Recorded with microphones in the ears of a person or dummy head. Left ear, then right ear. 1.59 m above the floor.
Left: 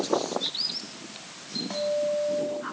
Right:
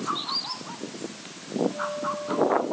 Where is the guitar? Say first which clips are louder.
Left 3 dB; 60° left (ahead or behind), 3.5 m.